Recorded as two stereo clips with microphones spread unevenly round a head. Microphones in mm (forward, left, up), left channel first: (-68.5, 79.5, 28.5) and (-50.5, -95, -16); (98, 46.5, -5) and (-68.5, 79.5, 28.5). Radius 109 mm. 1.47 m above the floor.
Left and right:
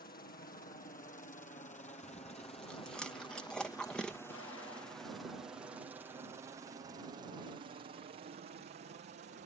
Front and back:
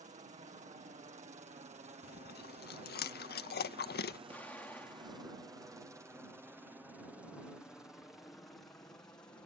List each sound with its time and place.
0.0 s a helicopter: 125° left; by 9.5 s 85° right
2.0 s chewing: 15° left
4.3 s an explosion: 70° left